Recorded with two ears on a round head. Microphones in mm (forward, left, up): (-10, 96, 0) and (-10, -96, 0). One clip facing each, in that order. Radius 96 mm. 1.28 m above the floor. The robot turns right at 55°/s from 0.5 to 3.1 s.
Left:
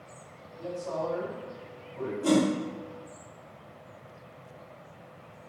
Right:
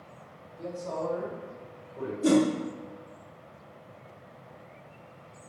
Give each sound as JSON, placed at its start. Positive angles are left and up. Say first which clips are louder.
{"t": 0.6, "sound": "a man speaking", "louder": "left 1 dB", "azimuth_deg": -100, "distance_m": 1.5}
{"t": 2.2, "sound": "a whoosh", "louder": "right 2 dB", "side_deg": -20, "distance_m": 0.5}